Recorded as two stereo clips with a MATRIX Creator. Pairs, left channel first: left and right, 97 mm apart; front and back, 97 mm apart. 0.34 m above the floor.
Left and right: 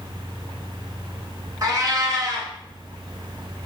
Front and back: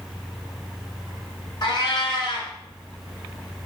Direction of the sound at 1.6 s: 40° right.